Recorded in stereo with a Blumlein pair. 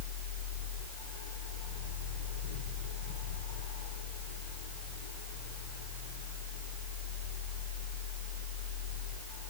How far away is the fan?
About 2.5 m.